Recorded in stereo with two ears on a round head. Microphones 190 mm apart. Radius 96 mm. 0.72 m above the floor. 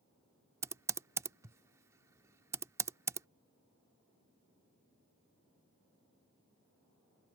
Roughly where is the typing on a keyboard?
Centre.